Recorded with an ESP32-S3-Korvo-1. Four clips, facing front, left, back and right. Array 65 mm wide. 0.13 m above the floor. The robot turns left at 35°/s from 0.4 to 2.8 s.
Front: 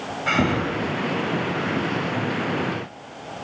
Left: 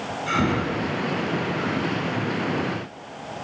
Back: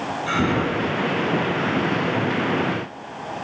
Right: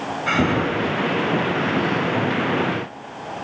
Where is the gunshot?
No gunshot in this recording.